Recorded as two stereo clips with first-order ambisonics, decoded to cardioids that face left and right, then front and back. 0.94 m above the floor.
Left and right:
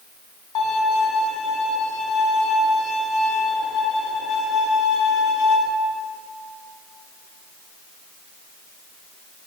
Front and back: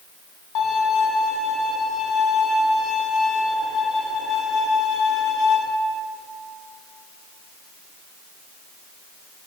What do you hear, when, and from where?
0.6 s a violin: 45° left, 2.0 m